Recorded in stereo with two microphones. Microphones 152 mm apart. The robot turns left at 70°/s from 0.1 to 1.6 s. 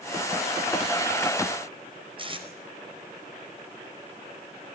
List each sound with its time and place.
2.2 s tape being pulled: 35° right (ahead or behind), 4.5 m